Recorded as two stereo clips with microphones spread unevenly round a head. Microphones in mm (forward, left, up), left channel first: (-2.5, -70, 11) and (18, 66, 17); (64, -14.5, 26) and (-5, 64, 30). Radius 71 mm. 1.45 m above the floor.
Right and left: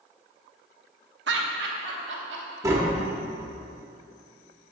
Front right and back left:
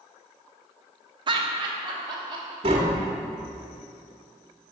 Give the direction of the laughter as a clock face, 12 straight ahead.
9 o'clock.